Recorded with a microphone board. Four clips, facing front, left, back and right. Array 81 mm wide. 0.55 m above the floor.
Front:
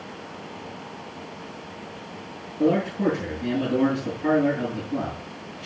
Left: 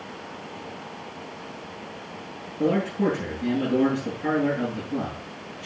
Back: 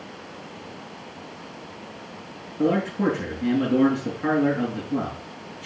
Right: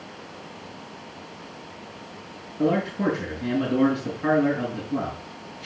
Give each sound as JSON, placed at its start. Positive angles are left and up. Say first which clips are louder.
{"t": 2.6, "sound": "a man speaking", "louder": "even, front 1 dB", "azimuth_deg": -155, "distance_m": 7.0}